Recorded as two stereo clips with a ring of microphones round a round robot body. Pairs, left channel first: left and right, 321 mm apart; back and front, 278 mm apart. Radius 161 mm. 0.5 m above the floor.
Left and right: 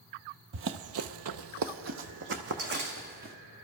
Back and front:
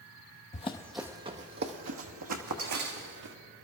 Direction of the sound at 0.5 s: 130° right.